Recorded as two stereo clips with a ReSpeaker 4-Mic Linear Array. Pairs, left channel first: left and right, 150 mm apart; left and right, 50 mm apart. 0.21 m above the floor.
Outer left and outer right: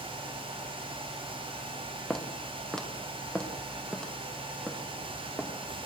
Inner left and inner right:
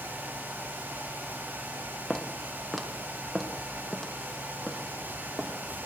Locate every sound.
2.1 s footsteps: centre (ahead or behind), 5 m; by 5.5 s 5° left (ahead or behind), 8 m